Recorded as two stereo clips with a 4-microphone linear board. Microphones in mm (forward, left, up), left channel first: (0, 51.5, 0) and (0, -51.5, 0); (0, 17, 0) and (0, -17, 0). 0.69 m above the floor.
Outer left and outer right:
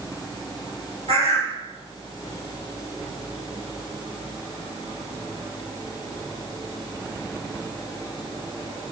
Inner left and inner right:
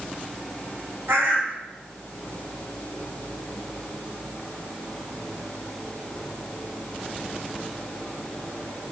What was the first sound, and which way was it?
A bird, 70° right (ahead or behind).